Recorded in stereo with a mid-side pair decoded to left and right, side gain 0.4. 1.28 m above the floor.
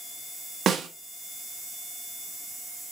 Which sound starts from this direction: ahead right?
A snare drum, at 0.7 s.